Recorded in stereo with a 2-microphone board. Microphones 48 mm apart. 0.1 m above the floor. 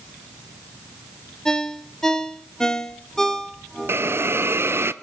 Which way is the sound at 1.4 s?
10° left (ahead or behind).